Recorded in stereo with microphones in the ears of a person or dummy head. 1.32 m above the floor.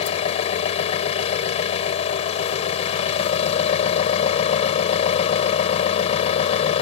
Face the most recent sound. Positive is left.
turn(degrees=40)  # may be behind; listen again after turning